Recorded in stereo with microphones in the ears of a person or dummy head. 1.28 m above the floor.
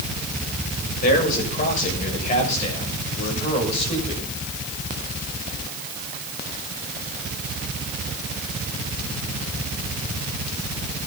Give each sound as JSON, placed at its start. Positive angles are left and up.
{"t": 1.0, "sound": "a man speaking", "side_deg": 45, "distance_m": 7.5}